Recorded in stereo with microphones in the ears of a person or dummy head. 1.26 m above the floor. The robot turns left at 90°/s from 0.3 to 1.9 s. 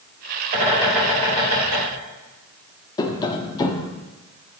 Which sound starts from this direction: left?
Tapping, at 3.0 s.